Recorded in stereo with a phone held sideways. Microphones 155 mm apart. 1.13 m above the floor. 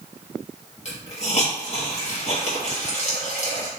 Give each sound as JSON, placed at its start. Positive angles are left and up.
{"t": 0.8, "sound": "a hiss", "side_deg": 45, "distance_m": 1.2}